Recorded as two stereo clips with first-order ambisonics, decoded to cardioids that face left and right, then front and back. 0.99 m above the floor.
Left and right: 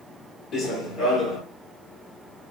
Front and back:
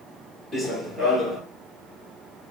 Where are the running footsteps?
85° left, 1.1 m.